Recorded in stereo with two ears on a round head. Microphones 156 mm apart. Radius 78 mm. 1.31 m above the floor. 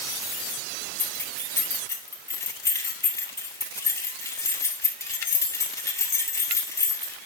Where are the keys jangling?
20° left (ahead or behind), 2 m.